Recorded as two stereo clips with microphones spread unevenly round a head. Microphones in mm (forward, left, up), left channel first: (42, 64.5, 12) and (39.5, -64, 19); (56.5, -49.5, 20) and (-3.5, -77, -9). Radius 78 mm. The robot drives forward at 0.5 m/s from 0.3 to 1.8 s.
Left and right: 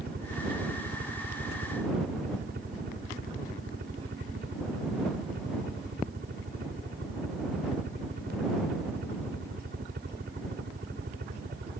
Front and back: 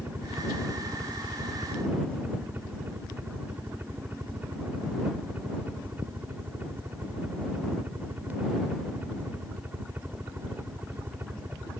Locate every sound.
0.0 s a helicopter: 95° right